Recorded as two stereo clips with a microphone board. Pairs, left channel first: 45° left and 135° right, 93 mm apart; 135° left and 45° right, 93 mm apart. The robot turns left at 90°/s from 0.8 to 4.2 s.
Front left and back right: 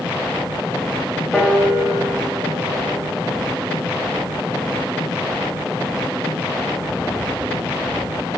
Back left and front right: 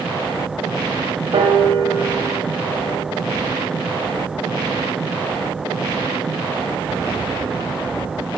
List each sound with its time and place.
1.3 s a piano: 35° right, 0.5 m; by 3.0 s 175° left, 0.5 m